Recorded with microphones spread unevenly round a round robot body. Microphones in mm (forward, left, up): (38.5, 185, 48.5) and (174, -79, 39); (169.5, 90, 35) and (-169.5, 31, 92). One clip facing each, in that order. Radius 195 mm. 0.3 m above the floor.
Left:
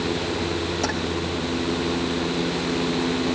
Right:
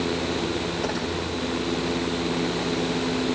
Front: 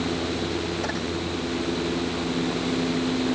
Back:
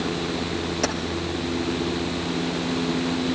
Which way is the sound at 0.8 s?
165° left.